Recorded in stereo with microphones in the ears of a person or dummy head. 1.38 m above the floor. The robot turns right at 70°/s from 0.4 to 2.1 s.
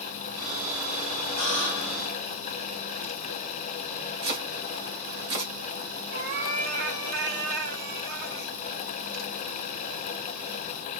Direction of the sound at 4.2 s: 45° right (ahead or behind).